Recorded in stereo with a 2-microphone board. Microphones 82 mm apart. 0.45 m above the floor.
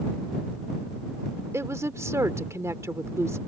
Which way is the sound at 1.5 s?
35° right (ahead or behind).